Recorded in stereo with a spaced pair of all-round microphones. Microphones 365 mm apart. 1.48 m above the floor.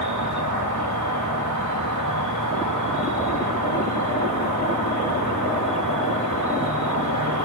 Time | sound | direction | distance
0.0 | an insect | 55° right (ahead or behind) | 4.5 m